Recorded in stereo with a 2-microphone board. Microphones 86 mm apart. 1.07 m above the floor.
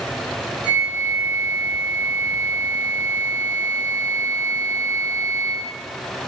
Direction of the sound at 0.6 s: 85° right.